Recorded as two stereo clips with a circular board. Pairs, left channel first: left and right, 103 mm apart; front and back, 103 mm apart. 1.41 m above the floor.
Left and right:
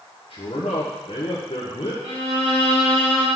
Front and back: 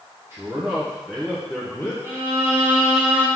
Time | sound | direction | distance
0.3 | a man speaking | 115° left | 1.3 m
2.0 | a violin | 105° right | 3.5 m